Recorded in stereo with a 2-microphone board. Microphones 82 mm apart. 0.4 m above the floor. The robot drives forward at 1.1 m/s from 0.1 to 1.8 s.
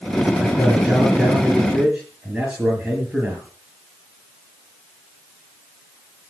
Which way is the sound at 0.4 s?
10° right (ahead or behind).